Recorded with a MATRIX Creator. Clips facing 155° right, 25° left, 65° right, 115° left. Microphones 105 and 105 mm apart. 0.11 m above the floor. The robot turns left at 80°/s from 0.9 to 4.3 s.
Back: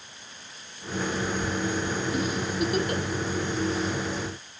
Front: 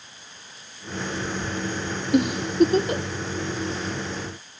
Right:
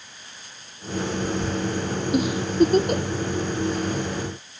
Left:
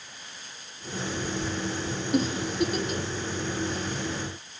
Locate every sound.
2.1 s a giggle: 20° left, 1.3 m; by 3.0 s 55° right, 1.3 m